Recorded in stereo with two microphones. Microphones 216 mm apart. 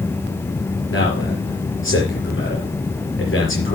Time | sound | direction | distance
0.9 | a man speaking | 70° left (ahead or behind) | 4.5 m